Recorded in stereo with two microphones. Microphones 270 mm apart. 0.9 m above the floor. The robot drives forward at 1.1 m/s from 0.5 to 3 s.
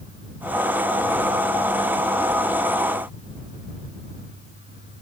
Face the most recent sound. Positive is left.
No sound to turn to.